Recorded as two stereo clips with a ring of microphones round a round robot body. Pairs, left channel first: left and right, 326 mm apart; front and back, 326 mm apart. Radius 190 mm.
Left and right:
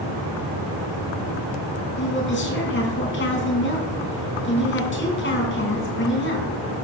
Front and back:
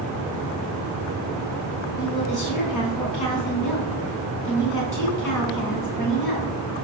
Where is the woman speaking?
35° left, 4 m.